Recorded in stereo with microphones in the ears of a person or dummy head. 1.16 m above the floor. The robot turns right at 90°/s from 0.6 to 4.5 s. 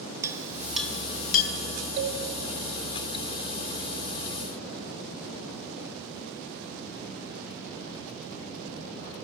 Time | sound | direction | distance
0.2 | a clink | 10° right (ahead or behind) | 0.7 m
2.0 | a cowbell | 65° right (ahead or behind) | 2.5 m